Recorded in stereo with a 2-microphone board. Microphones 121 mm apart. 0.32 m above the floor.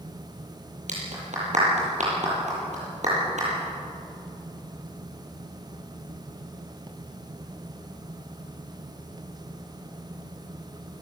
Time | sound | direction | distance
0.9 | a clap | 75° right (ahead or behind) | 8.5 m